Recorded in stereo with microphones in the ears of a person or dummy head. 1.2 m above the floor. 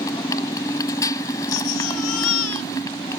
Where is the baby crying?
85° left.